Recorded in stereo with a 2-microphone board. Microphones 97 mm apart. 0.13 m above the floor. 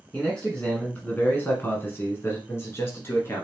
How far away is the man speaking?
About 1.4 m.